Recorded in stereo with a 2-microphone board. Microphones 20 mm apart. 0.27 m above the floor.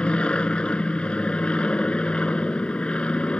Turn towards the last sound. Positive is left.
turn(degrees=60)  # may be behind; listen again after turning